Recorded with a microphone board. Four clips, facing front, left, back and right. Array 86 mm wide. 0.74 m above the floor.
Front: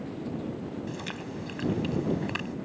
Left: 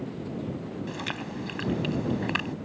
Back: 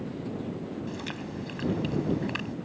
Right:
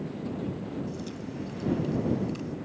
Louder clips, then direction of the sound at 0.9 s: Left 2 dB, even; 85° left.